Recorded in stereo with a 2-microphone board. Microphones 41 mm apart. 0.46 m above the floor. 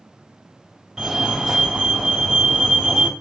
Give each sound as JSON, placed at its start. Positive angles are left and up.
{"t": 1.0, "sound": "a fire alarm", "side_deg": -5, "distance_m": 2.0}